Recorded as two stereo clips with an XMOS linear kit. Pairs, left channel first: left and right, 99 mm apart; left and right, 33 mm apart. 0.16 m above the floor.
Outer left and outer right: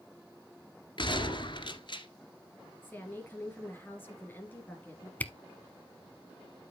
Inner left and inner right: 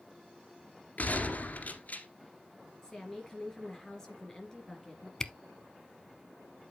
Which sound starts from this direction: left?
A gunshot, at 1.0 s.